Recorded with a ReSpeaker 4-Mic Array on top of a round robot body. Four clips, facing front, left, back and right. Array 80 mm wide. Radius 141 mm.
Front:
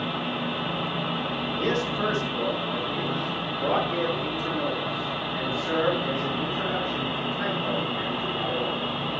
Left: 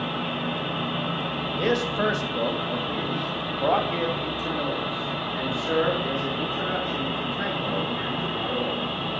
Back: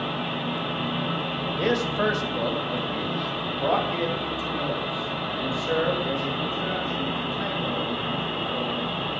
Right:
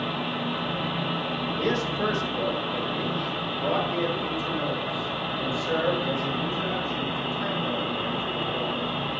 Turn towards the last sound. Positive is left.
turn(degrees=85)